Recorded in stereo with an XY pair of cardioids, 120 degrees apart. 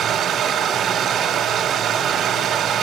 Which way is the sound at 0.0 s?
65° right.